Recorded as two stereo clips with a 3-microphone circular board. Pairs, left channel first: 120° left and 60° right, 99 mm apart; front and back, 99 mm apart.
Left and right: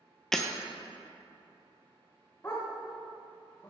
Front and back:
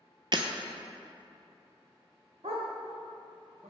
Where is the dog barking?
175° right, 1.8 m.